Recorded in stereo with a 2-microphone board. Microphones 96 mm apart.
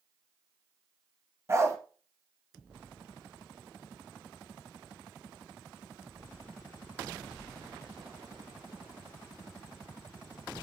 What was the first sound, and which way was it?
A dog barking, 30° right (ahead or behind).